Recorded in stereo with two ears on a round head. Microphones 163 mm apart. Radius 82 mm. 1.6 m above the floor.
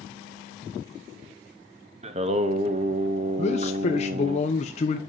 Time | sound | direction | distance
2.0 | singing | 35° right (ahead or behind) | 1.0 m
3.4 | a man speaking | 35° left (ahead or behind) | 1.0 m